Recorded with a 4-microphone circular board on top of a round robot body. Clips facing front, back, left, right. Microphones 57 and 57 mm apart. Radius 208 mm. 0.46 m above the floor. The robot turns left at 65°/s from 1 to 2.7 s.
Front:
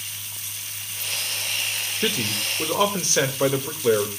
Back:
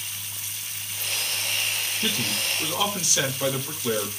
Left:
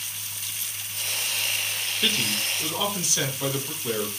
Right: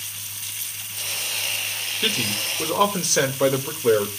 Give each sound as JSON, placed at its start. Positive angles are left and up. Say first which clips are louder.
{"t": 2.0, "sound": "a man speaking", "louder": "front 4 dB, right 1 dB", "azimuth_deg": -5, "distance_m": 2.5}